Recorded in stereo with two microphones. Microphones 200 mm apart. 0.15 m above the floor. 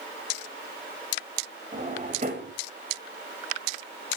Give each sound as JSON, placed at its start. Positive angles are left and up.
{"t": 1.7, "sound": "a drawer", "side_deg": -40, "distance_m": 6.5}